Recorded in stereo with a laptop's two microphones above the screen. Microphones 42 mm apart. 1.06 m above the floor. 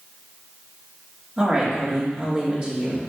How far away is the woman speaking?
About 3 m.